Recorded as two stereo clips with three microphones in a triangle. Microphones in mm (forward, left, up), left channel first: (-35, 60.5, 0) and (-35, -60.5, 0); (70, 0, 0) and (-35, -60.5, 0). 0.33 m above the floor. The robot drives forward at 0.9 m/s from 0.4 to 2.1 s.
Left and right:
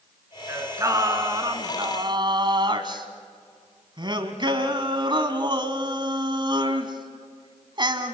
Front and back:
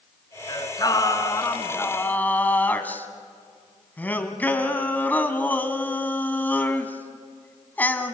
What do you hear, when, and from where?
0.5 s singing: 25° right, 3 m; by 8.2 s 45° right, 1.9 m